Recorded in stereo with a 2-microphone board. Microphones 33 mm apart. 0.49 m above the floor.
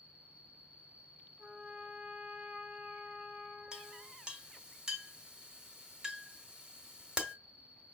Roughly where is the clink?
Right.